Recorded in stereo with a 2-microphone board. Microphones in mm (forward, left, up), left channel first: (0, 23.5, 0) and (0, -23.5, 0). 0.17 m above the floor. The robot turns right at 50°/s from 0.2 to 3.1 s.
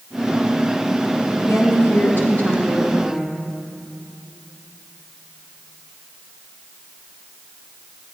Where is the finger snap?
No finger snap in this recording.